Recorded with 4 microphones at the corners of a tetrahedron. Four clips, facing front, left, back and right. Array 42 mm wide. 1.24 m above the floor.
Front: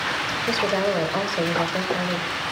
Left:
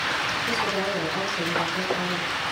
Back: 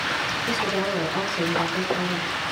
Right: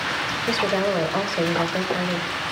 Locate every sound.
0.5 s a woman speaking: 50° right, 4.5 m